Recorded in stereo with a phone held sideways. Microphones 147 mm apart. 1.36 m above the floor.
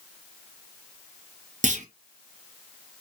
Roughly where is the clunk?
Right.